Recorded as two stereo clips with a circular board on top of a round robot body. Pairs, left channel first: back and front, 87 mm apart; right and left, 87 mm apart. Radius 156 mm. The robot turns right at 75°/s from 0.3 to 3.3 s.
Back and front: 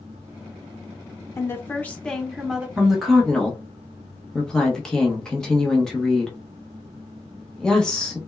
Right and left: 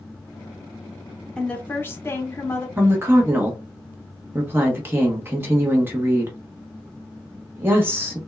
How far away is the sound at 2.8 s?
About 1.0 m.